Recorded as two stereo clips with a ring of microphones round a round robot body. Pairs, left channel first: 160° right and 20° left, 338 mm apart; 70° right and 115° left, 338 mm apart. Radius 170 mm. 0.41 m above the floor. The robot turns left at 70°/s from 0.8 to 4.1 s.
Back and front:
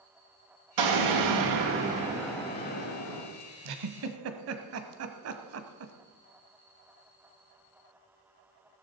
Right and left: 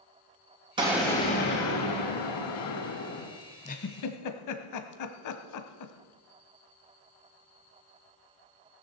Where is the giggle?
5° left, 1.1 m; by 5.9 s 25° right, 1.1 m.